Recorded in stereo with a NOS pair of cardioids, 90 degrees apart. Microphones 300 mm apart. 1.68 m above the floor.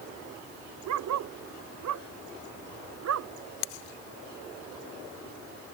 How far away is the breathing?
No breathing in this recording.